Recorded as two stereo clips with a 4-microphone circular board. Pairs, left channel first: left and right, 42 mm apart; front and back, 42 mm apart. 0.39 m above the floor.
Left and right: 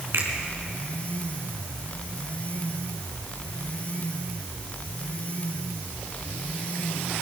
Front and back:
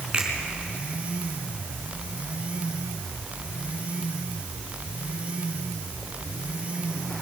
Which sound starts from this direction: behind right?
A finger snap, at 0.1 s.